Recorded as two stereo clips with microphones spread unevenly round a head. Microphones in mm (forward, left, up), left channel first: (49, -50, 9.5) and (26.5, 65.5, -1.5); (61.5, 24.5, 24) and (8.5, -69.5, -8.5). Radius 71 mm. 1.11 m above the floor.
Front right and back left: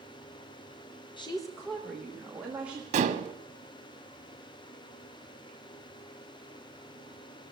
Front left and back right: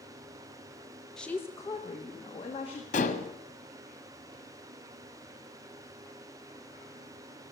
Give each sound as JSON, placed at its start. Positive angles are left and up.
{"t": 1.2, "sound": "a woman speaking", "azimuth_deg": -30, "distance_m": 1.0}
{"t": 2.9, "sound": "dishes clattering", "azimuth_deg": 75, "distance_m": 1.2}